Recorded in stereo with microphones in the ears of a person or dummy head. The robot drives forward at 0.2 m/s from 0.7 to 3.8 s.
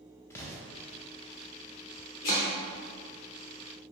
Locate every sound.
0.3 s an explosion: 15° left (ahead or behind), 0.6 m
2.2 s chopping: 25° left (ahead or behind), 0.6 m